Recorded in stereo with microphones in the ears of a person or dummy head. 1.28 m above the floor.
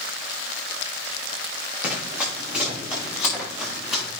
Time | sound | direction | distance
1.8 | running footsteps | 20° right (ahead or behind) | 5 m